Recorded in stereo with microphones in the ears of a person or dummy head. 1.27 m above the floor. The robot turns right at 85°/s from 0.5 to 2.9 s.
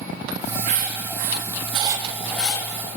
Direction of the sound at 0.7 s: 35° right (ahead or behind).